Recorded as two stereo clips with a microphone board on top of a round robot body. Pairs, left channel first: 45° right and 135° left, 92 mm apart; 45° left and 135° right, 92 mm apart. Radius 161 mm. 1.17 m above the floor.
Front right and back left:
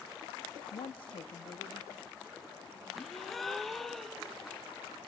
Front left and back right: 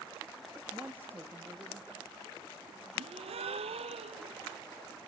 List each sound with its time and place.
0.7 s a woman speaking: 55° right, 0.5 m; by 2.9 s 75° right, 3 m
3.0 s a gasp: 135° right, 0.8 m